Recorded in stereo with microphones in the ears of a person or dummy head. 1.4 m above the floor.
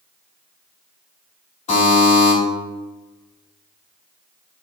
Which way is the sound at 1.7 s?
45° left (ahead or behind).